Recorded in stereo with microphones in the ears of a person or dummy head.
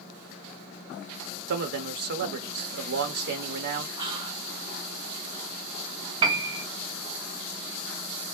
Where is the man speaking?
55° right (ahead or behind), 0.8 m.